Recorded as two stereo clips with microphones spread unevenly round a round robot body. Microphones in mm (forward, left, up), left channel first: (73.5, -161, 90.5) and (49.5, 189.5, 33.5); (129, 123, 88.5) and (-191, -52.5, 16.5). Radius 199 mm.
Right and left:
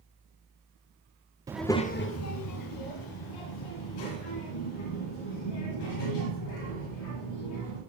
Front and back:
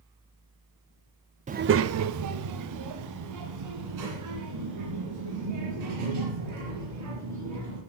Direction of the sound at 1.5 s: 160° left.